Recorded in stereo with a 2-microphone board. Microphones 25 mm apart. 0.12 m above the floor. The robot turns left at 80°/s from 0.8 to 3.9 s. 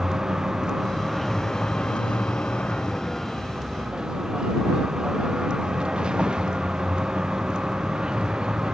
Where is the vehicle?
155° right; by 8.8 s 40° right.